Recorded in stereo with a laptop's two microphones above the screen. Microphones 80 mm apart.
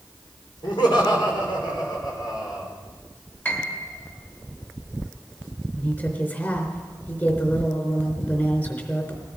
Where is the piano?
30° left (ahead or behind), 3.5 m.